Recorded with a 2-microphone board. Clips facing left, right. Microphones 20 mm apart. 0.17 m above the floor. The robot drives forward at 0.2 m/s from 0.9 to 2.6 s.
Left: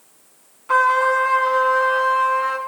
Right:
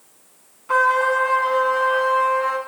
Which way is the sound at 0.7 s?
10° left (ahead or behind).